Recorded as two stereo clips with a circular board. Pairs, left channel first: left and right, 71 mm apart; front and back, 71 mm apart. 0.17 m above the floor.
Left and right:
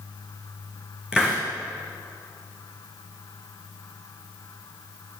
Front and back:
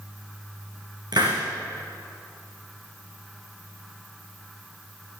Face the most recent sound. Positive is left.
turn(degrees=-165)